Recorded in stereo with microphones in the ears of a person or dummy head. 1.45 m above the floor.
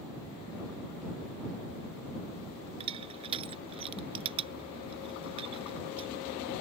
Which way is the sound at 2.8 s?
35° right (ahead or behind).